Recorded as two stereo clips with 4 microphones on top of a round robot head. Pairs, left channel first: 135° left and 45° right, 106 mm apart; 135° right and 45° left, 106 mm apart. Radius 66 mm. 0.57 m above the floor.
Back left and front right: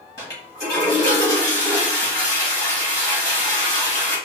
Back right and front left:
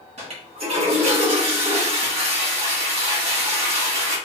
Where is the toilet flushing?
75° left, 1.6 m.